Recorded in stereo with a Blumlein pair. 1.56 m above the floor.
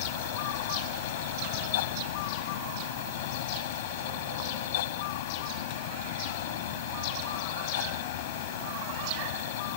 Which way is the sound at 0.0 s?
55° left.